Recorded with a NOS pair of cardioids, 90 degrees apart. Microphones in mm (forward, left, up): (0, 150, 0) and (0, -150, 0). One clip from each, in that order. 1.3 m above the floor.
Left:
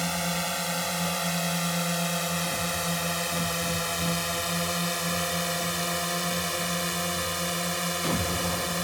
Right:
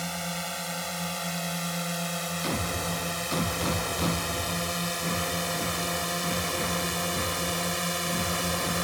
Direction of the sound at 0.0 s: 25° left.